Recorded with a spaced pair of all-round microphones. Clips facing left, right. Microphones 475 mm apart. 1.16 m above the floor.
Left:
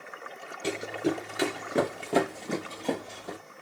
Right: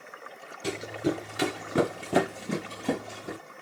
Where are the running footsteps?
15° right (ahead or behind), 1.2 m; by 3.4 s 30° right (ahead or behind), 1.9 m.